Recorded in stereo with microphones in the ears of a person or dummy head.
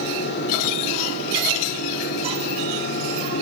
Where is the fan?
70° left (ahead or behind), 1.5 m.